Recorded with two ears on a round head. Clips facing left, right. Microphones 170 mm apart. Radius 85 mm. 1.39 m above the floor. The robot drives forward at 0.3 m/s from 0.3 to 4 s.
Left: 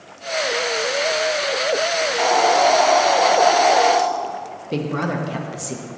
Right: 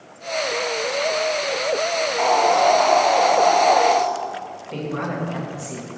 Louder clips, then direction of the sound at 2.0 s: Even; 20° left (ahead or behind).